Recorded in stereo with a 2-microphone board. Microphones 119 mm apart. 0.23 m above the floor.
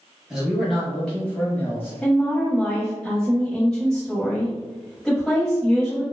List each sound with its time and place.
0.3 s a man speaking: 5° right (ahead or behind), 1.2 m; by 1.9 s 20° left (ahead or behind), 1.1 m
2.0 s a woman speaking: 5° left (ahead or behind), 1.0 m